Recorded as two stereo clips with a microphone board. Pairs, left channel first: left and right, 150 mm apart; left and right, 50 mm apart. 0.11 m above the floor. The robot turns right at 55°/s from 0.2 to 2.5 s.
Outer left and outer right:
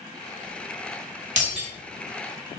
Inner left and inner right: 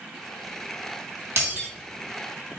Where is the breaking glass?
55° right (ahead or behind), 1.3 m; by 1.7 s 40° right (ahead or behind), 1.3 m.